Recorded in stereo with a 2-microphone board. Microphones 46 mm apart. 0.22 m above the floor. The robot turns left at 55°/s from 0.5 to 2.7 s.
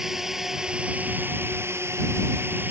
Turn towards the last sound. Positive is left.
turn(degrees=-130)